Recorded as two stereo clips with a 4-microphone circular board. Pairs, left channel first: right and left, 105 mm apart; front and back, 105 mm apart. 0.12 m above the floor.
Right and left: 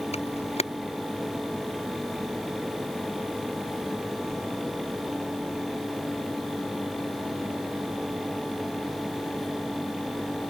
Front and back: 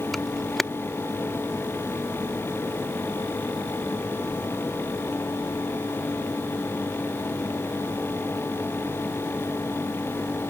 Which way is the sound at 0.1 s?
90° right.